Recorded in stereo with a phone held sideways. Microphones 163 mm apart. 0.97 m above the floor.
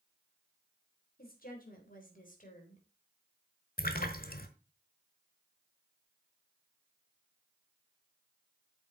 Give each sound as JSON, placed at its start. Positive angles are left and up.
{"t": 1.2, "sound": "a woman speaking", "side_deg": 65, "distance_m": 3.5}
{"t": 3.8, "sound": "a splash", "side_deg": 65, "distance_m": 1.4}